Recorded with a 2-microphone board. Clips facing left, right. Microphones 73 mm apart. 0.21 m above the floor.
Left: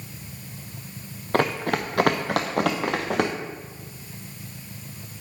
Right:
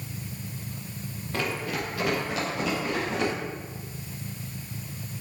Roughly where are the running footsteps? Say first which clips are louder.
Left 7 dB; left.